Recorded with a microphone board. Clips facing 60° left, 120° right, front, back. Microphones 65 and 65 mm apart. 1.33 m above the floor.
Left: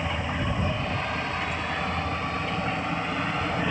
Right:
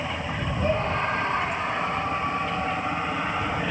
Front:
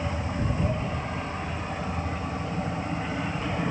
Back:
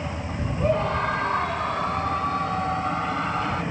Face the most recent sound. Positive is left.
turn(degrees=165)